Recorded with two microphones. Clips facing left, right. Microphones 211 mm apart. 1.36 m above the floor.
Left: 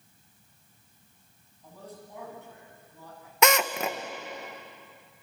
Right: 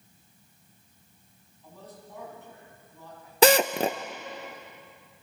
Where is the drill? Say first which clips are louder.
Right 5 dB; 35° right (ahead or behind), 0.7 m.